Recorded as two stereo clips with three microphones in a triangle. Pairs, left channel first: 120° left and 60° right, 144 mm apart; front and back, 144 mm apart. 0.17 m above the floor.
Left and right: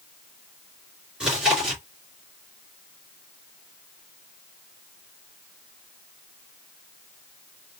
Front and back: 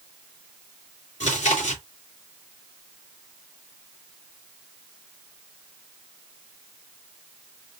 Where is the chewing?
25° left, 3 m.